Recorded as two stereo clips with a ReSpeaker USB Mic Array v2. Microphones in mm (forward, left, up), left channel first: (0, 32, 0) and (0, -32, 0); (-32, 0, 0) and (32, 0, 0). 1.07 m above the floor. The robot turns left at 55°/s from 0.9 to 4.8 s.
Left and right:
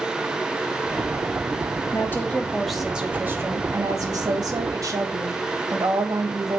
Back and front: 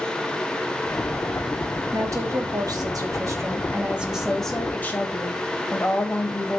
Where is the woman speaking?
40° left, 1.7 m; by 6.6 s 120° right, 1.7 m.